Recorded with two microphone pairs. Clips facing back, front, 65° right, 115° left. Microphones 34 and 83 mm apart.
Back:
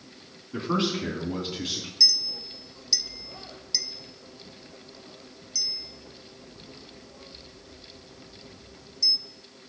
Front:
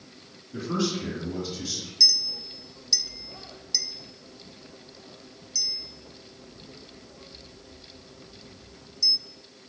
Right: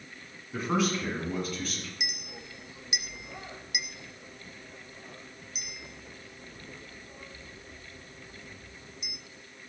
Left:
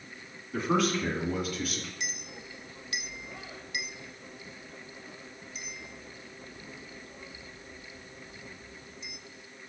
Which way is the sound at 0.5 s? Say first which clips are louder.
Back 2 dB, left 1 dB; 150° right.